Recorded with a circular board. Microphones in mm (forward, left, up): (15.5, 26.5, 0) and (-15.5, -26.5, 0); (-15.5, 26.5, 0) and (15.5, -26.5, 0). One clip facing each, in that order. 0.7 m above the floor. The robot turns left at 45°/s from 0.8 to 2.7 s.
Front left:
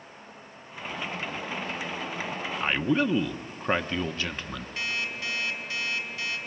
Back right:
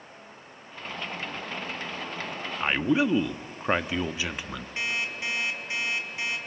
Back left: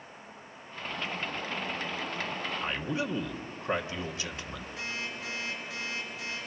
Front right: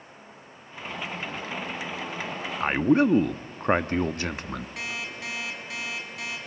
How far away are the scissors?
I don't hear scissors.